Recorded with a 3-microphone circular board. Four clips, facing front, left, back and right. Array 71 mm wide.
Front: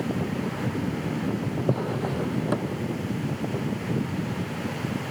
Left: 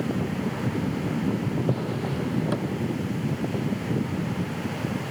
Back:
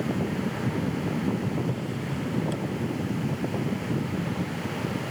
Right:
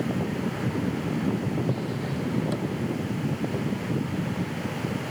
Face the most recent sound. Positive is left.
turn(degrees=15)